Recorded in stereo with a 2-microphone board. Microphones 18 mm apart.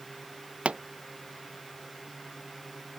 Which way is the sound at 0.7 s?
75° right (ahead or behind).